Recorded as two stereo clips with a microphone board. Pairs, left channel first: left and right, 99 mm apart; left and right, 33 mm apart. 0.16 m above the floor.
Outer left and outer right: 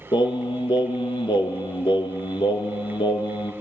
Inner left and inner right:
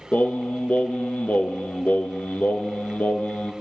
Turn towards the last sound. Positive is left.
turn(degrees=60)  # may be behind; listen again after turning